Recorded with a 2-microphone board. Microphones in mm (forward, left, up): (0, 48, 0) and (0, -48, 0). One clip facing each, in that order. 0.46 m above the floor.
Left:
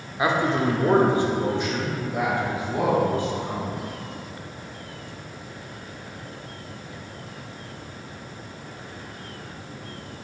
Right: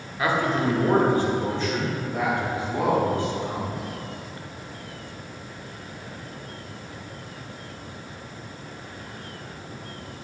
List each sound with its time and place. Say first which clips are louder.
0.2 s a man speaking: left 1 dB; 20° left (ahead or behind), 0.8 m; by 3.7 s 15° left (ahead or behind), 2.5 m